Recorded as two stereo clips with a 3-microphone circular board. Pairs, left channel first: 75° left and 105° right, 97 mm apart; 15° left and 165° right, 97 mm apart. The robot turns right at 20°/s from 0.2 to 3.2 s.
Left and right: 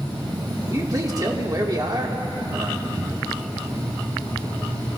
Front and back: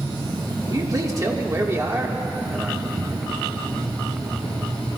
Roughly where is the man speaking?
Behind right.